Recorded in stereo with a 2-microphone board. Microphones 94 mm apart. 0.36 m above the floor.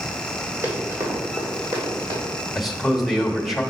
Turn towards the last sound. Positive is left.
turn(degrees=-5)  # may be behind; listen again after turning